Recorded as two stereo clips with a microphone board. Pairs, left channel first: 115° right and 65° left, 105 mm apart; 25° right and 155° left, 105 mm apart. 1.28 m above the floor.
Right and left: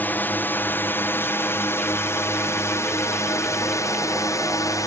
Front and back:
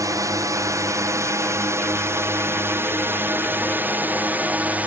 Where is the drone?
175° right; by 4.9 s 135° right.